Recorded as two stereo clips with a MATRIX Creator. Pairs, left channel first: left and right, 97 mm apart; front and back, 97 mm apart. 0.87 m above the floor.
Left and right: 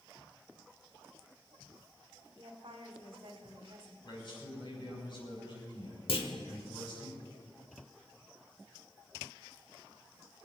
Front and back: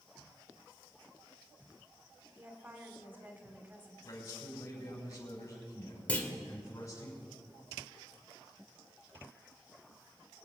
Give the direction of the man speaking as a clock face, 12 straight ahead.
10 o'clock.